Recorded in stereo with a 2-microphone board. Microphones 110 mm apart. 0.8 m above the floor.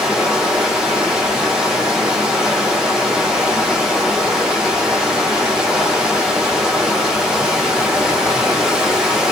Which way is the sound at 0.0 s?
5° right (ahead or behind).